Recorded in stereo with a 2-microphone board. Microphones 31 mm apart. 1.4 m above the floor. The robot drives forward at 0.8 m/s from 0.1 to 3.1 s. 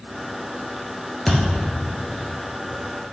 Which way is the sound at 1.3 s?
5° left (ahead or behind).